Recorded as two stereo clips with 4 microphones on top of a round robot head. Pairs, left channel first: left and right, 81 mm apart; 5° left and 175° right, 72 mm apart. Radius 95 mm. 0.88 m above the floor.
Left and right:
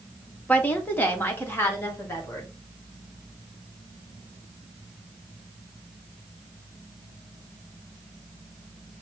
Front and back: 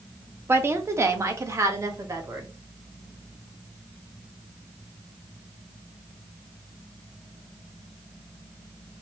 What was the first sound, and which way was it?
A woman speaking, 150° left.